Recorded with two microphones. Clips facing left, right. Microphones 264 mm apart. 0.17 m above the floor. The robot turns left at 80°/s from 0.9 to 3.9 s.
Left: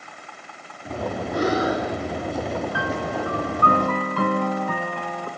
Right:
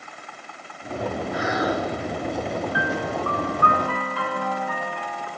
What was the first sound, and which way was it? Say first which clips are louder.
Breathing: left 5 dB; 60° left.